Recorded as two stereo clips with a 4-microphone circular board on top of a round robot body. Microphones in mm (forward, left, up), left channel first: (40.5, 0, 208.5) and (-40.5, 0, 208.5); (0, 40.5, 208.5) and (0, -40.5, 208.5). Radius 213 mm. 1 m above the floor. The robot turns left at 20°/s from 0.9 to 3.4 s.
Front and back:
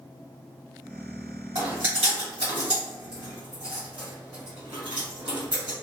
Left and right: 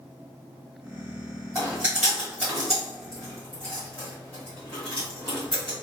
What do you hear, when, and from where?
1.6 s chewing: 150° right, 1.2 m; by 5.7 s 170° left, 1.2 m